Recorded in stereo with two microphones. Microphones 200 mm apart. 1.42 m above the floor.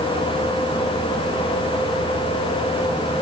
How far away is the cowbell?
I don't hear a cowbell.